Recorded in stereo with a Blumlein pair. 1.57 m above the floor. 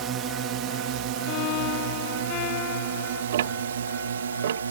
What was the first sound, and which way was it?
A drone, 30° right.